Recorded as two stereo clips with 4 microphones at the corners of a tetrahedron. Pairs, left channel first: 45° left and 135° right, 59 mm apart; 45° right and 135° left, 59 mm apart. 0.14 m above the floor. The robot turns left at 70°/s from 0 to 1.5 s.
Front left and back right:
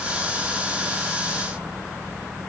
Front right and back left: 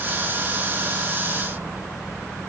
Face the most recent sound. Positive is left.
No sound to turn to.